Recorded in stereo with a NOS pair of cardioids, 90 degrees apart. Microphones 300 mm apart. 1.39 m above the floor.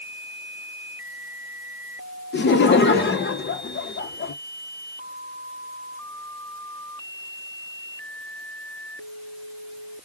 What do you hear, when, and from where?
2.3 s laughter: 35° left, 1.0 m